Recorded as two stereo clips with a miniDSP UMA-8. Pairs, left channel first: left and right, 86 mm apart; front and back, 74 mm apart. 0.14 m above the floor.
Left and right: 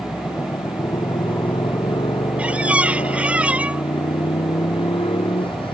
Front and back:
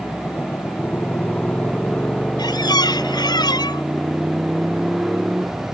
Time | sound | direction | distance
0.0 | a motorcycle | 55° left | ?
2.4 | a squeak | 15° right | ?